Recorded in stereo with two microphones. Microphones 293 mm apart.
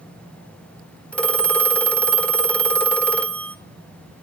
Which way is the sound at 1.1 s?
5° left (ahead or behind).